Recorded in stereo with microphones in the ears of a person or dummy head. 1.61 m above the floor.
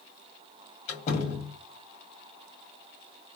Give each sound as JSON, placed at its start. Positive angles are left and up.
{"t": 0.9, "sound": "a door slam", "side_deg": 45, "distance_m": 1.9}